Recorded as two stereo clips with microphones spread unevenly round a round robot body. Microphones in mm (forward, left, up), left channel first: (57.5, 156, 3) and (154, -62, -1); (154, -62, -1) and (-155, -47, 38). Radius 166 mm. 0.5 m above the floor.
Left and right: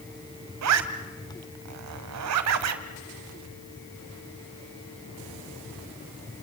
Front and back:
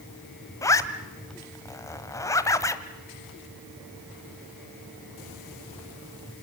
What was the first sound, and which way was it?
A zipper, 85° right.